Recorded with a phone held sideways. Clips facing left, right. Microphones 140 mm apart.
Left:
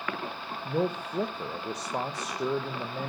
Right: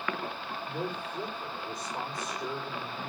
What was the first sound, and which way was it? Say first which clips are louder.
A man speaking: left 8 dB; 80° left.